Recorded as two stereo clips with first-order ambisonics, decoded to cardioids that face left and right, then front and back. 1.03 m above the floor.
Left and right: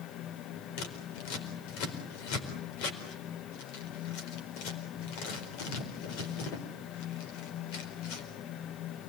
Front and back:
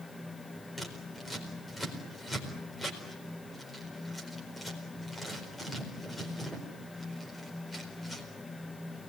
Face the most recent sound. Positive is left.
turn(degrees=85)